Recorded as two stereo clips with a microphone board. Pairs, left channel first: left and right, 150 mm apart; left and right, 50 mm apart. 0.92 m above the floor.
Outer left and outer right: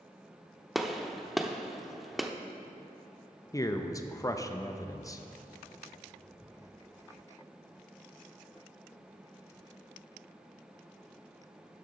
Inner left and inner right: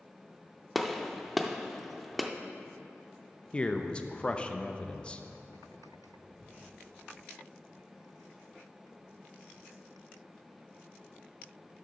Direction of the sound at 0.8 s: Centre (ahead or behind).